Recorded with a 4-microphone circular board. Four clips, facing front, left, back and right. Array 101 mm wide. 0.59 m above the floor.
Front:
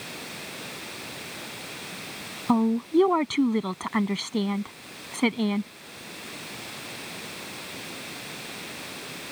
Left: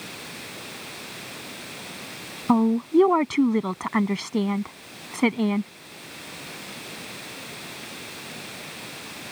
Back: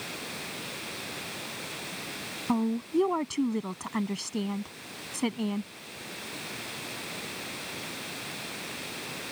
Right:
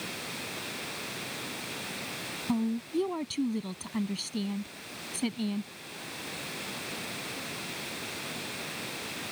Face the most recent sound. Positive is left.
turn(degrees=70)